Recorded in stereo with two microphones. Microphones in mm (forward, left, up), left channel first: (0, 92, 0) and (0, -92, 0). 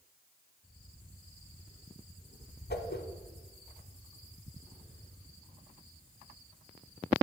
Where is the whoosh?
65° left (ahead or behind), 0.7 m.